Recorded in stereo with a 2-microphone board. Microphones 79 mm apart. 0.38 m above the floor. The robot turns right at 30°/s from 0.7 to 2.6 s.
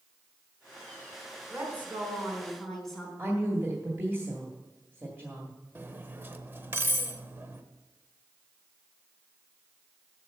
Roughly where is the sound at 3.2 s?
Right.